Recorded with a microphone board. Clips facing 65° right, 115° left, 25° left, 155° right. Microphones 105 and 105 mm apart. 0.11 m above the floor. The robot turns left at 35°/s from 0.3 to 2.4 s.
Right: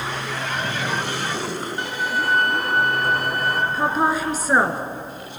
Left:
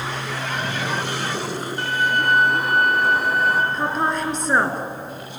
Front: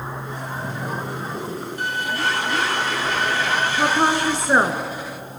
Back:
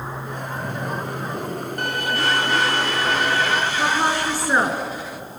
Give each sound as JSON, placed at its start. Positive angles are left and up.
{"t": 1.8, "sound": "a violin", "azimuth_deg": -135, "distance_m": 1.6}
{"t": 3.7, "sound": "a woman speaking", "azimuth_deg": 10, "distance_m": 1.7}